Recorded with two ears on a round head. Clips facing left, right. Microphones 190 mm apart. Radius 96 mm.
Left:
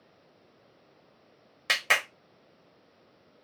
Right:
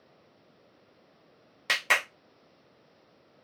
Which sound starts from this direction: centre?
A clap, at 1.7 s.